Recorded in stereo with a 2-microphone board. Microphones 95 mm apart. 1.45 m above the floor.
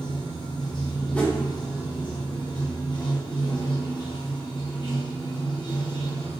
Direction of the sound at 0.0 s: 50° left (ahead or behind).